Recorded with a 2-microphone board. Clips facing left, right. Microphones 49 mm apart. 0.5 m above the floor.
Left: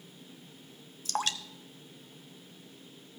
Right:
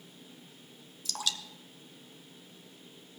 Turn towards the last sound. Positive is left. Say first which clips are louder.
# left 4 dB
turn(degrees=45)  # may be behind; listen again after turning